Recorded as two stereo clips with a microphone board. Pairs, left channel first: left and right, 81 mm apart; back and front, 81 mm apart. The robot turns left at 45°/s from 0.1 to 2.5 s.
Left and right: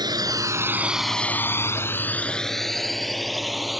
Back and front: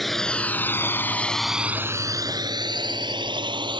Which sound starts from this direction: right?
A drone, at 0.0 s.